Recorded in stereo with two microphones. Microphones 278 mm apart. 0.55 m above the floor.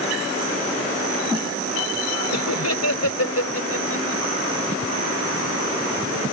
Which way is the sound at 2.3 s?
70° left (ahead or behind).